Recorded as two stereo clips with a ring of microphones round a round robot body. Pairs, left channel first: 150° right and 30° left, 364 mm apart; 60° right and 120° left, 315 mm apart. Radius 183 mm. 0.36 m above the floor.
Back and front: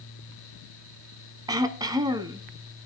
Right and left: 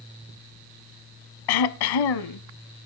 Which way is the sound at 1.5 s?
50° right.